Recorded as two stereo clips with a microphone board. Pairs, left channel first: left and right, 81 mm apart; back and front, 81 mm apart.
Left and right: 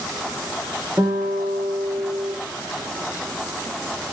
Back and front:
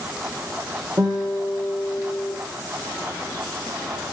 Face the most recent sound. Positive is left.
turn(degrees=-30)